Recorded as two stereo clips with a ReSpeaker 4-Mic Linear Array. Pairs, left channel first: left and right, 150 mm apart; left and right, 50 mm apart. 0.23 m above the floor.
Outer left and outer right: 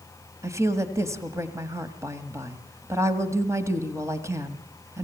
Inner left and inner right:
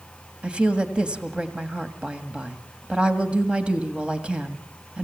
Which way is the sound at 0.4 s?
20° right (ahead or behind).